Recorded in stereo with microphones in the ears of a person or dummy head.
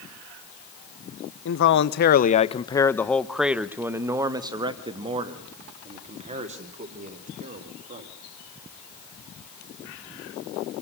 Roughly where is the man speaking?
Left.